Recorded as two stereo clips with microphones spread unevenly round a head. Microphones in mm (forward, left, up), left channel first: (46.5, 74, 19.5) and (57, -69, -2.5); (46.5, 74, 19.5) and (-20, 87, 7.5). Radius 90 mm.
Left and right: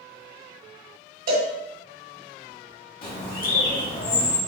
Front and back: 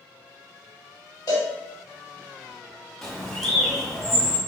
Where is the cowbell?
75° right, 2 m.